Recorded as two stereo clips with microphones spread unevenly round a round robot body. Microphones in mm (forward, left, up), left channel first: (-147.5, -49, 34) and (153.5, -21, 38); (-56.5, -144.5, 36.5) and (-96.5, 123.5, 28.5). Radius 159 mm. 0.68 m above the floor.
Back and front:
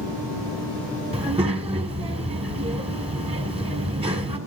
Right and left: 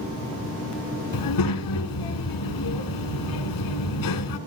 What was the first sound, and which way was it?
A child speaking, 70° right.